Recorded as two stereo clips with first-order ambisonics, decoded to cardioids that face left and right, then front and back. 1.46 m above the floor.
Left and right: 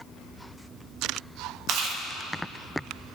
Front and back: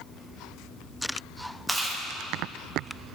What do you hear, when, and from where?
1.7 s chewing: 95° right, 0.7 m